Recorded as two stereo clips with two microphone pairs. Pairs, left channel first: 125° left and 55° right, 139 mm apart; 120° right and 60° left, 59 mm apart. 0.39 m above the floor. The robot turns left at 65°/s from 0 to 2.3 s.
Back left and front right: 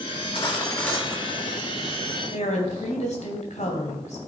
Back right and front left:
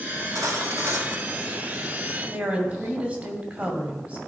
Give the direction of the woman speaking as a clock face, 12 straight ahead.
8 o'clock.